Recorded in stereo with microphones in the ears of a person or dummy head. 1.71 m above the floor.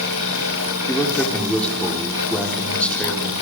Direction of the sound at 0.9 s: Centre (ahead or behind).